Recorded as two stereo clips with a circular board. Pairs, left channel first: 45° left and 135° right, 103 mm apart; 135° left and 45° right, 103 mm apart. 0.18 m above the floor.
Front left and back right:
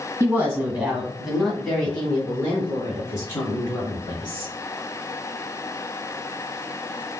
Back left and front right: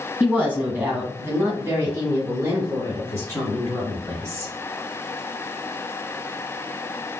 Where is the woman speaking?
100° right, 1.7 m; by 4.5 s 10° left, 2.5 m.